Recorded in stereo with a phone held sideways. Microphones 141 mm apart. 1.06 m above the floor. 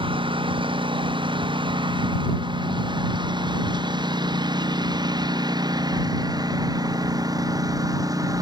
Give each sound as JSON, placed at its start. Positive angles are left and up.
{"t": 0.0, "sound": "a lawn mower", "side_deg": -40}